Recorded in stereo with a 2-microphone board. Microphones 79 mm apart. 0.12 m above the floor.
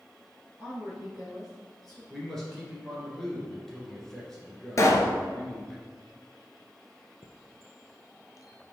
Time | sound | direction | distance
0.6 | a woman speaking | 15° right (ahead or behind) | 2 m
2.1 | a man speaking | 5° left (ahead or behind) | 2 m
4.8 | a pop | 40° left (ahead or behind) | 0.9 m
7.2 | a chime | 50° left (ahead or behind) | 0.6 m